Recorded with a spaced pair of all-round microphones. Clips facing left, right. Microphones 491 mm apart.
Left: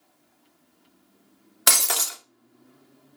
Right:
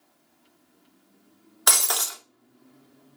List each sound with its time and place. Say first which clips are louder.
1.7 s breaking glass: left 1 dB; 45° left (ahead or behind), 0.6 m